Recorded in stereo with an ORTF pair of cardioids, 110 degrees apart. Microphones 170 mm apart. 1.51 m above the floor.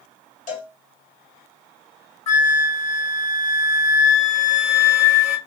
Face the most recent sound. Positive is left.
turn(degrees=40)